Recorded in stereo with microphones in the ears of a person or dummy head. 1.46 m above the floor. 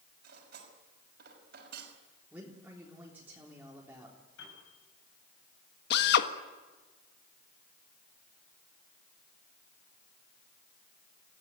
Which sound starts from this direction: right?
Cutlery clinking, at 0.2 s.